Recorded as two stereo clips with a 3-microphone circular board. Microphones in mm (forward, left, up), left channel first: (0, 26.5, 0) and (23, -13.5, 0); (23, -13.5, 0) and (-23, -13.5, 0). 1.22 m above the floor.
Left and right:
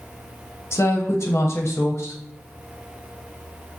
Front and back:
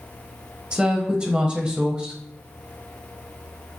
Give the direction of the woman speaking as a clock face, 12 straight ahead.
8 o'clock.